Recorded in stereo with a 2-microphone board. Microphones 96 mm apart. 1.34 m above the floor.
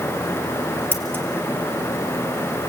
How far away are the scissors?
About 2 m.